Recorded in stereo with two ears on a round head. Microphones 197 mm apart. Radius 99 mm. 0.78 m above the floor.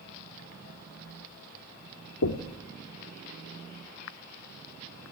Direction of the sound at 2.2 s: 75° left (ahead or behind).